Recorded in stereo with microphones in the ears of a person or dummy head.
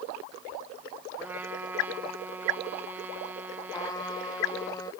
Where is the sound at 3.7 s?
20° left (ahead or behind).